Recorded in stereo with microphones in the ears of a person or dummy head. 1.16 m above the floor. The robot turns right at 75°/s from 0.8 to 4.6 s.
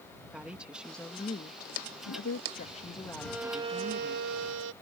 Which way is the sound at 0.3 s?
10° right.